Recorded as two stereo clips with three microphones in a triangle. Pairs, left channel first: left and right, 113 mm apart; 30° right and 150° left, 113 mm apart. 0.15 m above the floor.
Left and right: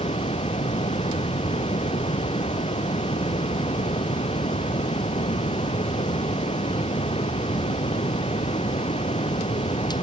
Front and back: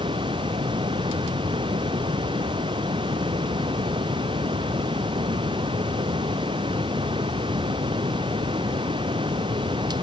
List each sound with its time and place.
0.0 s running water: 115° left